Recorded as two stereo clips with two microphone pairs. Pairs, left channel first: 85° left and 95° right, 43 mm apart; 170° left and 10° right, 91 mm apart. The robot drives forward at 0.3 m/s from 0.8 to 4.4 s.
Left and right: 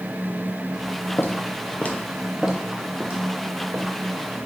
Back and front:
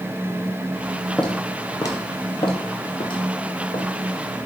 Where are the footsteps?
85° left, 0.8 m; by 3.9 s 155° right, 1.7 m.